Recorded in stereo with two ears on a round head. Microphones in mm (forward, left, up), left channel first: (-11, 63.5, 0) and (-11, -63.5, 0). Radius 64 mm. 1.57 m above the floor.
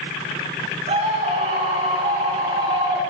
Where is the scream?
50° right (ahead or behind), 7 m; by 3.0 s 40° right (ahead or behind), 7.5 m.